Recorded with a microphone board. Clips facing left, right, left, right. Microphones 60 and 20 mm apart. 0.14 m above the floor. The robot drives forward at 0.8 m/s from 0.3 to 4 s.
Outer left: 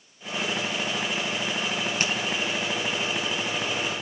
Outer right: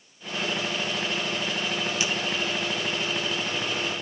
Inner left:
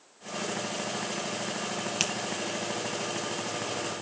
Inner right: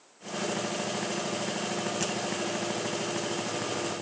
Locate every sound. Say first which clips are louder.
2.0 s a finger snap: outer left 3 dB, inner left 6 dB; 50° left (ahead or behind), 3.5 m; by 2.1 s 55° left (ahead or behind), 3.5 m